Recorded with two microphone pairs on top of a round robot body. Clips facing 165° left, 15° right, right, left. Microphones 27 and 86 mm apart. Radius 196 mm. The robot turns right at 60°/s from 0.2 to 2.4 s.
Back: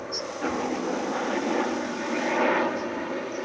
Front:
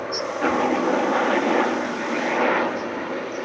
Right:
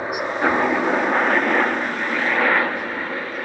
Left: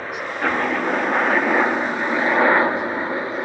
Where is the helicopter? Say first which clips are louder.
Front 7 dB, right 3 dB; 50° right; by 3.5 s 60° left.